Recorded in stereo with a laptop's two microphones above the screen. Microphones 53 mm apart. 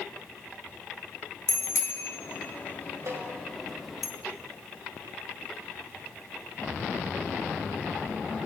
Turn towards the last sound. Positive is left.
turn(degrees=-70)  # may be behind; listen again after turning